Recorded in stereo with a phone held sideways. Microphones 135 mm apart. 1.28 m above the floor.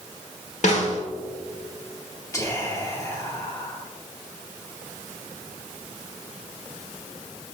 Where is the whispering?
25° left (ahead or behind), 1.7 m.